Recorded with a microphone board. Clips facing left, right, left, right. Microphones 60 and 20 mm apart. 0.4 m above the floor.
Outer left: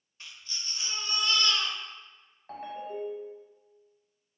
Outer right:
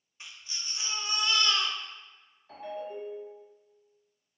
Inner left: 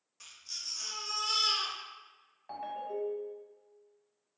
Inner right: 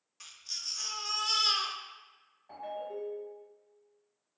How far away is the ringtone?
About 1.2 m.